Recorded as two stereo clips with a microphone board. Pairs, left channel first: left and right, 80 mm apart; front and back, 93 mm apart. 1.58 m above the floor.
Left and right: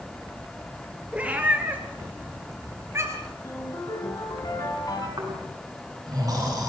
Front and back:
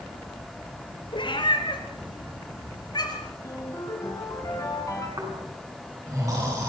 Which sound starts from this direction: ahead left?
A ringtone, at 3.4 s.